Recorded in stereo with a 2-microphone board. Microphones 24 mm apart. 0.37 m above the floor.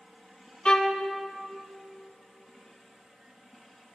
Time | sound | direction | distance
0.7 | a violin | 35° left (ahead or behind) | 0.5 m